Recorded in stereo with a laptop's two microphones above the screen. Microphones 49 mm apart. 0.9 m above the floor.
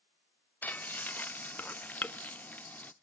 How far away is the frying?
About 0.5 m.